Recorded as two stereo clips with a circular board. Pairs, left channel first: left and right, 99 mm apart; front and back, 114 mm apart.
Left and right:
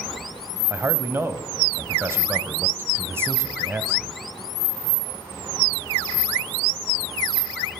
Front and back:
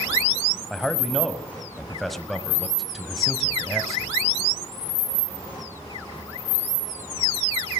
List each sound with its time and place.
0.7 s a man speaking: 90° right, 1.4 m